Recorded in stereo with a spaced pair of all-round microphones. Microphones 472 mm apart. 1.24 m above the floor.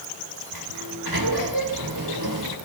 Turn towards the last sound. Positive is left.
turn(degrees=-50)  # may be behind; listen again after turning